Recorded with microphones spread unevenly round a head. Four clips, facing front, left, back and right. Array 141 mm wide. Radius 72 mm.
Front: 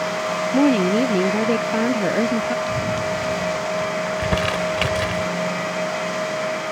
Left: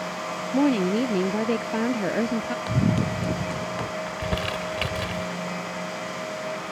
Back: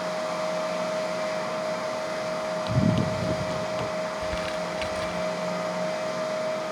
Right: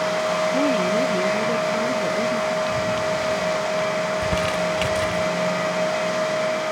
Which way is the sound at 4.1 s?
5° right.